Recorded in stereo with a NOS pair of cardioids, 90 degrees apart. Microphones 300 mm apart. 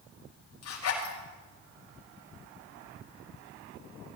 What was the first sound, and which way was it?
A zipper, 55° left.